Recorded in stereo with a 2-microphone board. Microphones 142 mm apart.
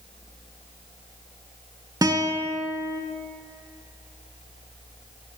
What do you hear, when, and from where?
2.0 s a guitar: 25° right (ahead or behind), 0.5 m